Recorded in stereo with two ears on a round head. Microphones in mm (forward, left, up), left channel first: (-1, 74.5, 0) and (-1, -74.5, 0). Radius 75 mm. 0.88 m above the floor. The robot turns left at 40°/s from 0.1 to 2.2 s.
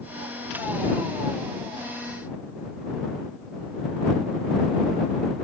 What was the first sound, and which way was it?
Only background noise.